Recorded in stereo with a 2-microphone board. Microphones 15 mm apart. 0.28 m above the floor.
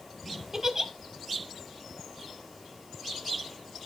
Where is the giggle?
25° right (ahead or behind), 1.2 m.